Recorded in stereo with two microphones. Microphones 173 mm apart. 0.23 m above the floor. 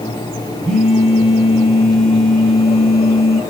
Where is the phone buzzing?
5° left (ahead or behind), 1.9 m.